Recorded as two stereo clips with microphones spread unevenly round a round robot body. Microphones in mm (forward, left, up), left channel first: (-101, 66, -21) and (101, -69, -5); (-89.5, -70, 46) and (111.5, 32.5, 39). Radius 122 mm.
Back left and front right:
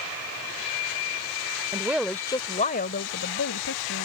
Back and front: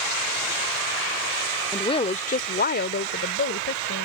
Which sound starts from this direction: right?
A woman speaking, at 1.7 s.